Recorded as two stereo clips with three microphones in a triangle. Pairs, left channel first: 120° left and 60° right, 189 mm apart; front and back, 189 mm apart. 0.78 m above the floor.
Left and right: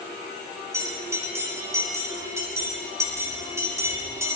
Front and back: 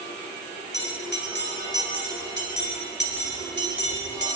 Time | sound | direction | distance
0.7 | a bell | 15° left | 4.5 m